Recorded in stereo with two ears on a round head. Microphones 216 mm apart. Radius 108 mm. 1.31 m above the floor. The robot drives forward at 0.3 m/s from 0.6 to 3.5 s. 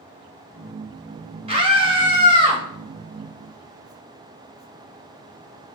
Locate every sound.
1.5 s a scream: 25° right (ahead or behind), 1.9 m; by 2.6 s 20° right (ahead or behind), 2 m